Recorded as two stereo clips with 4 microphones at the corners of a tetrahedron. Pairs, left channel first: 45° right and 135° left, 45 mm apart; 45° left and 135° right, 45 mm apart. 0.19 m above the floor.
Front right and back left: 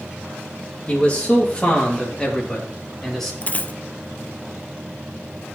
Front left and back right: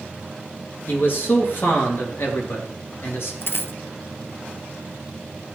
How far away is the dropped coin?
About 0.6 m.